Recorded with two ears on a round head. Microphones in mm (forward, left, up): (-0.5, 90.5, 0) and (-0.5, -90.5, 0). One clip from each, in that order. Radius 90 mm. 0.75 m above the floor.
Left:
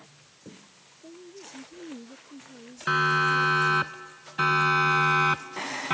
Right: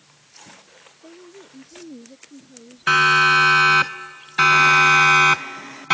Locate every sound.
1.0 s a woman speaking: 35° right (ahead or behind)
2.9 s a siren: 65° right (ahead or behind); by 5.9 s 60° right (ahead or behind)